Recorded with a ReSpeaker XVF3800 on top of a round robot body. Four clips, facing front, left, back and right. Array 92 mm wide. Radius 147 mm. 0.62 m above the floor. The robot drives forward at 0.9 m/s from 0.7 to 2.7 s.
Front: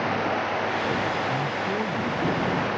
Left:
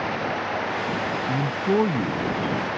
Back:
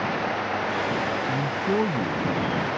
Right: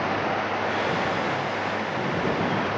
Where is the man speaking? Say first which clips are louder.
Left 3 dB, back 1 dB; 105° left; by 2.7 s 115° left.